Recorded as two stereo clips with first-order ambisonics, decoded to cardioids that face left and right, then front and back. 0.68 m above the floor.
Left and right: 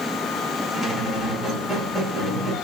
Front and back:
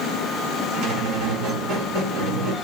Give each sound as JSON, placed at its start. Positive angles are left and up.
{"t": 0.7, "sound": "a squeak", "azimuth_deg": 180, "distance_m": 2.0}